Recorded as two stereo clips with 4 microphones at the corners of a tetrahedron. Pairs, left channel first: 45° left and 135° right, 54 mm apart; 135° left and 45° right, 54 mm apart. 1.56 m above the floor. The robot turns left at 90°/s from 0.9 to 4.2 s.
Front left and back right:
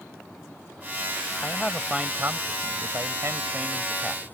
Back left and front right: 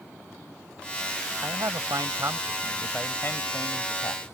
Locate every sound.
1.4 s a man speaking: 10° right; by 4.3 s 100° left